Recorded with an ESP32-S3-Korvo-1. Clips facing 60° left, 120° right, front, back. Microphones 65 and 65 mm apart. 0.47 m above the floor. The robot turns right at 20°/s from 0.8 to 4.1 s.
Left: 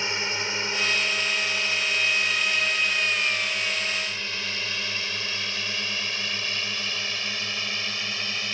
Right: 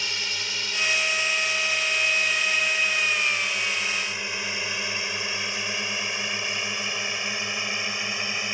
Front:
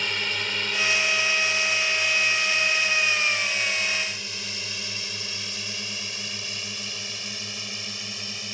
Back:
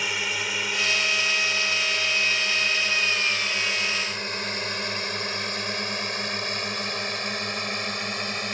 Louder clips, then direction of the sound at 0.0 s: Left 3 dB, back 1 dB; 100° left.